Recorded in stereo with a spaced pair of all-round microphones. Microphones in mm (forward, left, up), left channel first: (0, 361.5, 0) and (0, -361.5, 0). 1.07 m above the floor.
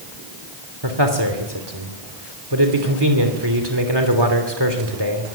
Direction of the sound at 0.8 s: 35° right (ahead or behind).